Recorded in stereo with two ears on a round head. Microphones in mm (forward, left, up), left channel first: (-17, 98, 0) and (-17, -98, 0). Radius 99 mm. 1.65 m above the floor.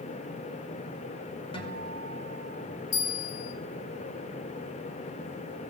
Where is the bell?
35° left (ahead or behind), 1.7 m.